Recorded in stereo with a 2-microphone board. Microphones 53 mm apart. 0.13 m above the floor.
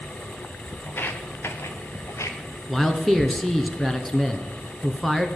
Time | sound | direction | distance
0.9 | footsteps | 40° left (ahead or behind) | 2 m
2.7 | a man speaking | 5° left (ahead or behind) | 1.8 m